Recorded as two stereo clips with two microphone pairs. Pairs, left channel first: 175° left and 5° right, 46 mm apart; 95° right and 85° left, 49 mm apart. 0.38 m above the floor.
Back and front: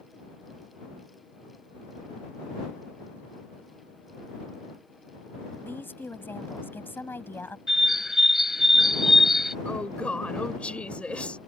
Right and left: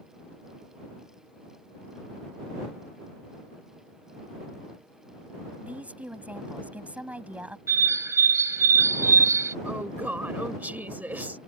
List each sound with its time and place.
5.6 s a woman speaking: 145° left
7.7 s a bird: 80° left
9.7 s a woman speaking: 125° left